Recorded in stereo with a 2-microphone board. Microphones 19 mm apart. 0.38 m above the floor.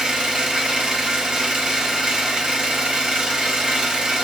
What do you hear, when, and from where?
0.0 s an engine running: 40° right (ahead or behind), 0.9 m